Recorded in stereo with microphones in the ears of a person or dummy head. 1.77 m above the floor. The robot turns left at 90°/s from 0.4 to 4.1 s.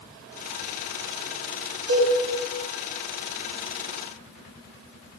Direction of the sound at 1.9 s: 80° right.